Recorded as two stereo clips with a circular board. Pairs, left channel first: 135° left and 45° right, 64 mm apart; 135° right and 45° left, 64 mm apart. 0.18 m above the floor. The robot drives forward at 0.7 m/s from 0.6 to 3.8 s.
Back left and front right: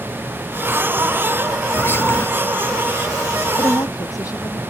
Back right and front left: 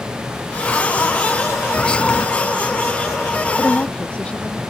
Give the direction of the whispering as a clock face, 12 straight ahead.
7 o'clock.